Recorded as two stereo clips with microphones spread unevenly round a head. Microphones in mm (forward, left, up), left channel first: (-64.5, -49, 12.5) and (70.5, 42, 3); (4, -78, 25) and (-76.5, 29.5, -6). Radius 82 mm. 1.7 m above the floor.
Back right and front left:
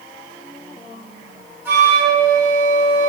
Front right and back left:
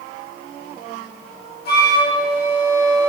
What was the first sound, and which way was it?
A flute, 45° right.